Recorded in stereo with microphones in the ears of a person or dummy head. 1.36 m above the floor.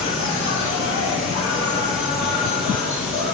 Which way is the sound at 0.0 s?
65° left (ahead or behind).